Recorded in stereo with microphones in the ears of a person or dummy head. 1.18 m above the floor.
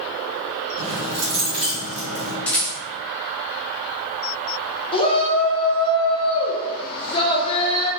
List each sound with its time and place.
0.8 s keys jangling: 80° right, 1.3 m
2.5 s a rattle: 10° left (ahead or behind), 0.7 m
4.9 s a shout: 30° left (ahead or behind), 0.6 m